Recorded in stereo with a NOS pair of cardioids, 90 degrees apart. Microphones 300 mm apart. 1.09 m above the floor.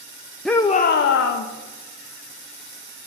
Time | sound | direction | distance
0.5 | a shout | straight ahead | 0.8 m